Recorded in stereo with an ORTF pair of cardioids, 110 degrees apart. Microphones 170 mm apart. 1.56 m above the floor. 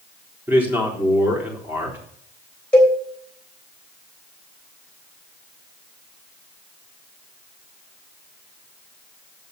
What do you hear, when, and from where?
0.5 s a man speaking: 10° right, 4 m
2.7 s a cowbell: 5° left, 3.5 m